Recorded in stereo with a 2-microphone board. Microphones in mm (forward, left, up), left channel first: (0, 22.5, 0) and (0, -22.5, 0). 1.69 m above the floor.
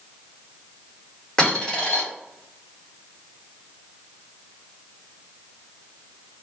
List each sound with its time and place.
1.4 s a dropped coin: 15° left (ahead or behind), 1.9 m